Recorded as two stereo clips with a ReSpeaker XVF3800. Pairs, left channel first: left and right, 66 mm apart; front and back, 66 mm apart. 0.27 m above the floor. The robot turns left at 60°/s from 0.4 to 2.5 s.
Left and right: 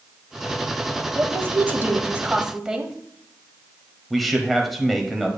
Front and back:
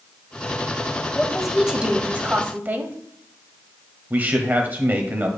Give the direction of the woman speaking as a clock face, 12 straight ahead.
3 o'clock.